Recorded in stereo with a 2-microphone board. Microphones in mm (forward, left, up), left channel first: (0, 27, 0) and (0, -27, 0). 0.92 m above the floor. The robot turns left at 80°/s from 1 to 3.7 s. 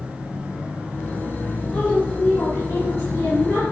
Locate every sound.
1.7 s a woman speaking: 160° left, 4 m; by 3.6 s 10° left, 4 m